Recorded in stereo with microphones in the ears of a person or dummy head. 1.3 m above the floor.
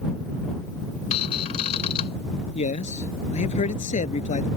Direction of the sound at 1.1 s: 35° left (ahead or behind).